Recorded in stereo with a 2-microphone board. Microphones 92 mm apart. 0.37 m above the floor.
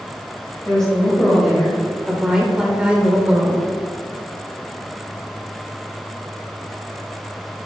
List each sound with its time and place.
0.7 s a woman speaking: 5° left (ahead or behind), 2.0 m; by 3.7 s 15° right (ahead or behind), 1.3 m